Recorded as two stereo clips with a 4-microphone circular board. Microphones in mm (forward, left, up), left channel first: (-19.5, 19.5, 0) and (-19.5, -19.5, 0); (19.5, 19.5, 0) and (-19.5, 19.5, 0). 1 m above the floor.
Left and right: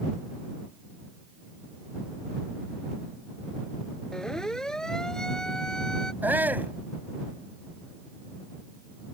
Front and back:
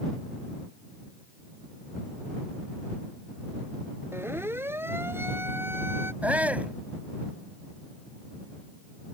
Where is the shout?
130° right.